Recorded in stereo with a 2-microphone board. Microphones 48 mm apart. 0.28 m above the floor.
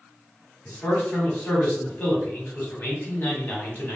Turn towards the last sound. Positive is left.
turn(degrees=40)  # may be behind; listen again after turning